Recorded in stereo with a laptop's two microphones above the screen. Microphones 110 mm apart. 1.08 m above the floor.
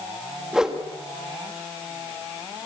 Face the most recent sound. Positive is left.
turn(degrees=-5)  # may be behind; listen again after turning